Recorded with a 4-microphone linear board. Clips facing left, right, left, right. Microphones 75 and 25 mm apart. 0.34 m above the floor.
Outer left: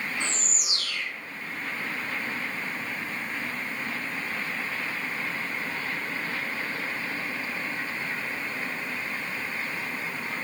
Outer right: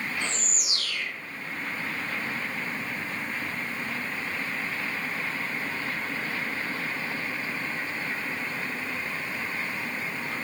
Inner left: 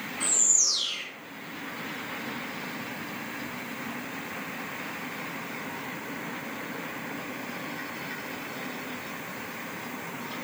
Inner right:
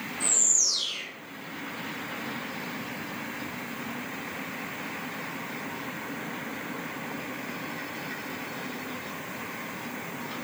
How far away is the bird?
About 3 m.